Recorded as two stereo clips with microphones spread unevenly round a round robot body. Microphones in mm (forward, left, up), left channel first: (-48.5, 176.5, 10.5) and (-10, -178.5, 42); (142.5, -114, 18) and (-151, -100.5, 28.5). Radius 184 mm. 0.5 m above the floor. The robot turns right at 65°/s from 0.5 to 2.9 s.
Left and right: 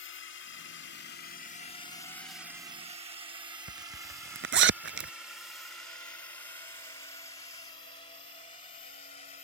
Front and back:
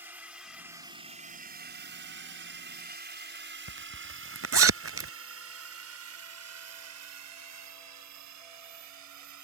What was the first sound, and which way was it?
A drone, 95° left.